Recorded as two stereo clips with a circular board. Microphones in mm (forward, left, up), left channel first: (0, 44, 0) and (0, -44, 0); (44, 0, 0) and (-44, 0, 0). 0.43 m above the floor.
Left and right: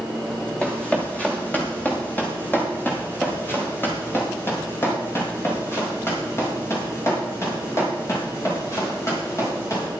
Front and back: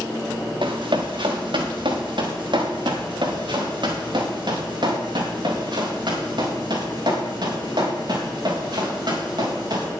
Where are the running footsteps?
165° left, 3.5 m; by 9.9 s 145° left, 8 m.